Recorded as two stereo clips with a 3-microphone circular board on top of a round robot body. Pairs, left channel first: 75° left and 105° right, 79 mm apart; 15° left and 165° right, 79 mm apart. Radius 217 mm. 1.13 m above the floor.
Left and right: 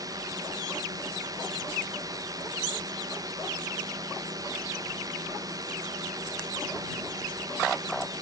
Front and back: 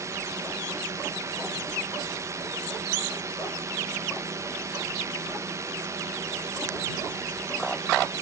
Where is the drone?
125° right.